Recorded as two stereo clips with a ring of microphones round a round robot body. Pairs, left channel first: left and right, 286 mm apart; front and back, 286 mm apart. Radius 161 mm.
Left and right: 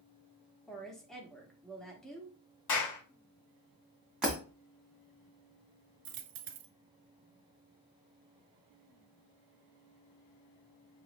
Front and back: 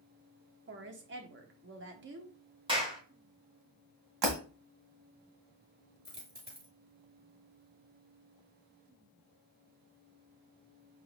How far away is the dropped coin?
About 0.8 m.